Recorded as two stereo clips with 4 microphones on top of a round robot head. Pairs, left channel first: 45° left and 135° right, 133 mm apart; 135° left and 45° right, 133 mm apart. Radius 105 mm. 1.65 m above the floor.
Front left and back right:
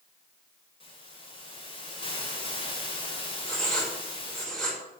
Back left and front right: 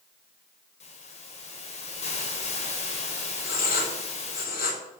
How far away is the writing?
About 5 m.